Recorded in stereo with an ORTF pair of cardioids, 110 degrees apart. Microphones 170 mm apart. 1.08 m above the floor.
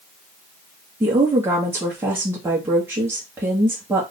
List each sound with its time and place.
1.0 s a woman speaking: 15° right, 1.5 m